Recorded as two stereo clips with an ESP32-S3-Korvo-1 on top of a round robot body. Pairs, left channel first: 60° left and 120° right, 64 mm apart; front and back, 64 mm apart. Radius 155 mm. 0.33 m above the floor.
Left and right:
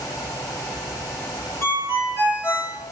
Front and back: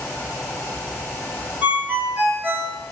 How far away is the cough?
No cough in this recording.